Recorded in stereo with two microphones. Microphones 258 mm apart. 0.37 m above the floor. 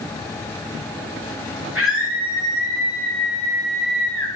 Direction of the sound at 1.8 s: 55° right (ahead or behind).